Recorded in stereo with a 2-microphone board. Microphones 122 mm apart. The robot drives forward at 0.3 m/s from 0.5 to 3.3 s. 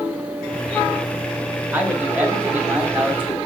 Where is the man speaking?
15° right (ahead or behind), 0.9 m.